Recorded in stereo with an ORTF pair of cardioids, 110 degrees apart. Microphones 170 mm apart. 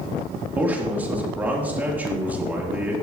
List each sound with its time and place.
0.6 s a man speaking: 10° right, 3.5 m